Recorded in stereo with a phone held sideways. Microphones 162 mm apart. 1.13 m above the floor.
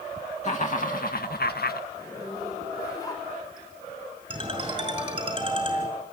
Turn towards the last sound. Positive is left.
turn(degrees=-30)  # may be behind; listen again after turning